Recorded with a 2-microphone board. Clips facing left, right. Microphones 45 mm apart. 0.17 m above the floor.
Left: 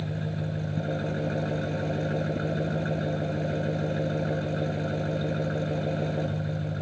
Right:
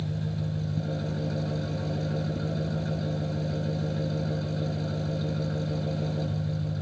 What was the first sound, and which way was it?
An engine running, 35° left (ahead or behind).